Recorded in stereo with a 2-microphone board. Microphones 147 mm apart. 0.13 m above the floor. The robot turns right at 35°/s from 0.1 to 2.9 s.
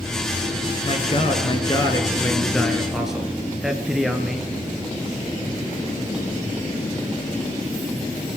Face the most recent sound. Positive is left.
turn(degrees=-175)